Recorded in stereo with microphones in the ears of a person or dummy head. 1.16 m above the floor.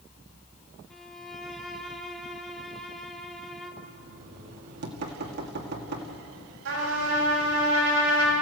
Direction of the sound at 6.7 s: 90° right.